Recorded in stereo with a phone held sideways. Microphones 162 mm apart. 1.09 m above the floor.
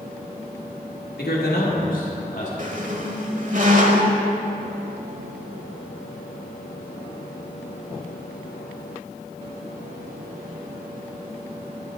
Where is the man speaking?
70° left (ahead or behind), 1.8 m; by 2.5 s 50° left (ahead or behind), 2.5 m.